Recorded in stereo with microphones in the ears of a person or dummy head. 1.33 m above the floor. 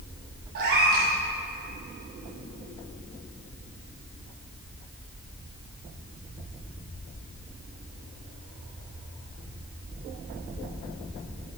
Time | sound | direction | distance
0.6 | a cat meowing | 55° right (ahead or behind) | 1.4 m